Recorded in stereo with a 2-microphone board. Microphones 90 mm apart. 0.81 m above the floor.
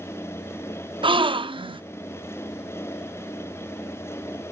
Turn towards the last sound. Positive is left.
turn(degrees=-60)  # may be behind; listen again after turning